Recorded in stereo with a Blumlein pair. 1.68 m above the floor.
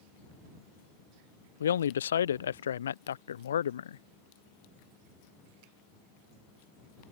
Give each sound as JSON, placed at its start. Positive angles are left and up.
{"t": 1.6, "sound": "a man speaking", "azimuth_deg": 65}